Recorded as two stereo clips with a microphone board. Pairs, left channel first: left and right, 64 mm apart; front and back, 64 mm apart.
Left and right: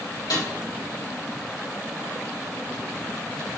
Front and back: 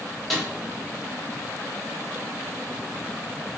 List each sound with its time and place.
0.3 s a snare drum: 85° left, 4 m